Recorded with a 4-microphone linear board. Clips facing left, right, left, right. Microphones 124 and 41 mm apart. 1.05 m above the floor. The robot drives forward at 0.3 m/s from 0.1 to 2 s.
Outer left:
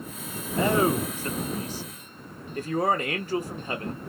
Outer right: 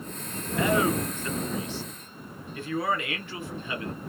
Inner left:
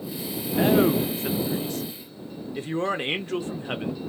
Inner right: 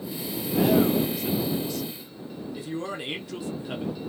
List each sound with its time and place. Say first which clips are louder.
0.6 s a man speaking: outer left 2 dB, inner left 1 dB; 30° left (ahead or behind), 0.7 m; by 4.0 s 40° left (ahead or behind), 0.5 m